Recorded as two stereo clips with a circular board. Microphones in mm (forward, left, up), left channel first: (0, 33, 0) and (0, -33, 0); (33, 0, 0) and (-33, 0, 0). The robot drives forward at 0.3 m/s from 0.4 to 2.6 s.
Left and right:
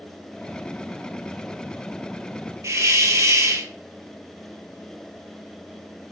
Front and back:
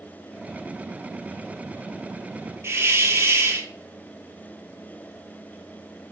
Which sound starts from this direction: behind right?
A hiss, at 2.6 s.